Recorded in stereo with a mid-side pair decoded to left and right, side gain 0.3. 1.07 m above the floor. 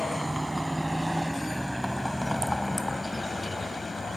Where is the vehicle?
15° right; by 4.2 s 45° left.